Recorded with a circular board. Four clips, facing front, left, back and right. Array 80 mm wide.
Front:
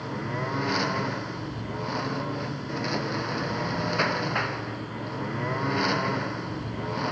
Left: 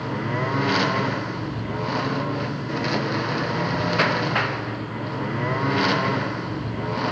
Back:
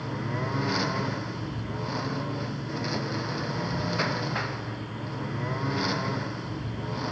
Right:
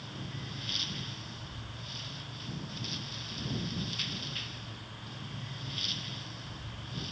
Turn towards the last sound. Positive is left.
turn(degrees=75)